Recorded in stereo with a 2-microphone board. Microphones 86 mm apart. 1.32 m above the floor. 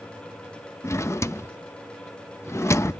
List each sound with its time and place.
0.8 s a drawer: 30° left (ahead or behind), 0.7 m